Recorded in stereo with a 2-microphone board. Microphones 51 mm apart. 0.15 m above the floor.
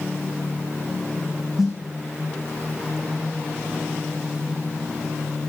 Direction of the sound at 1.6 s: 5° right (ahead or behind).